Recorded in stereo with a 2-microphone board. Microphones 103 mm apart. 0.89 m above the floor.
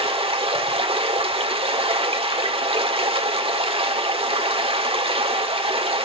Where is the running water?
70° right (ahead or behind), 1.6 m.